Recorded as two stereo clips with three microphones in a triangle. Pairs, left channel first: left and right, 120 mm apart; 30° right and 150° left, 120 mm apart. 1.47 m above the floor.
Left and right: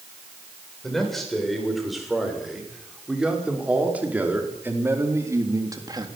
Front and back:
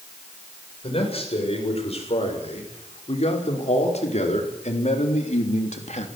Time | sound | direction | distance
0.8 | a man speaking | 5° left | 7 m